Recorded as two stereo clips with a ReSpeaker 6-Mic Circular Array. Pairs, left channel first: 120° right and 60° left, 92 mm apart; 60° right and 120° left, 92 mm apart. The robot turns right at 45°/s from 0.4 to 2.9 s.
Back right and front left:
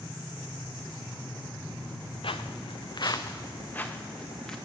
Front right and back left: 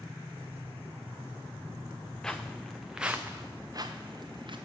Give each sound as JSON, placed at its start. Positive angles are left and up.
{"t": 2.2, "sound": "footsteps", "azimuth_deg": -145, "distance_m": 0.6}